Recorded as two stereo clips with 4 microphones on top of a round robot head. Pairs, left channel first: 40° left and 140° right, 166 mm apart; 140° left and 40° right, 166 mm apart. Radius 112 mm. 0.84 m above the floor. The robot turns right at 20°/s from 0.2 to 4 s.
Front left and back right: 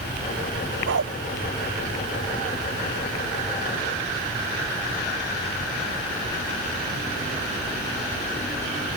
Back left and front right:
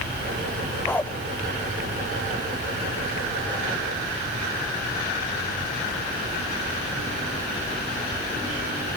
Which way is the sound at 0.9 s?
140° right.